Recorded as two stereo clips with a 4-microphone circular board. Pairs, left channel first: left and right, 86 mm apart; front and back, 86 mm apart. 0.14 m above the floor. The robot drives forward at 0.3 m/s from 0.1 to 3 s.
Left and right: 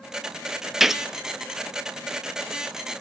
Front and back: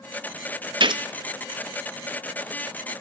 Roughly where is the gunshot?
Behind.